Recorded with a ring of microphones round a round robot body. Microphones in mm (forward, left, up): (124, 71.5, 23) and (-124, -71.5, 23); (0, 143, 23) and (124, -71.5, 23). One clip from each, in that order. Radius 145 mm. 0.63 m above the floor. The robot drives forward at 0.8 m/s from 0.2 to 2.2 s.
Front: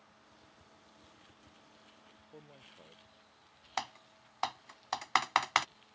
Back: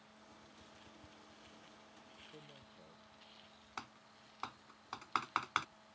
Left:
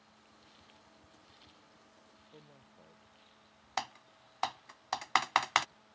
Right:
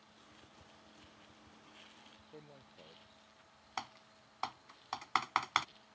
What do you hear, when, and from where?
2.3 s a man speaking: 5° right
3.8 s typing on a keyboard: 70° left